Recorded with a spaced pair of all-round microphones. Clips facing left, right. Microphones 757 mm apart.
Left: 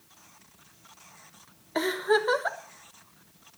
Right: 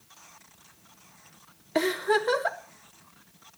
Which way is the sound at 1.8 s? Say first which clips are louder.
Even; 55° right (ahead or behind).